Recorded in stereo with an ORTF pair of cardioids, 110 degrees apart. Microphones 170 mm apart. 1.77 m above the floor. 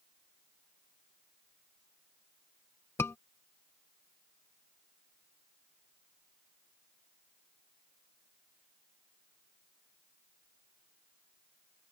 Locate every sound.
3.0 s a scream: 15° left